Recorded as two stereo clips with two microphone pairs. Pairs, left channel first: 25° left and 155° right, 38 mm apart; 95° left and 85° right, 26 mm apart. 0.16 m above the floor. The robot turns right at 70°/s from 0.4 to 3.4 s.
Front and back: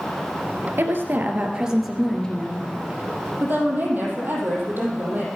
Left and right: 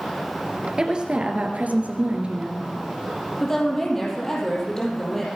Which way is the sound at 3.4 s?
175° left.